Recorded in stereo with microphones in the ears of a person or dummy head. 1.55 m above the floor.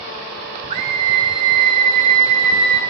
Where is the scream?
25° right (ahead or behind), 0.5 m.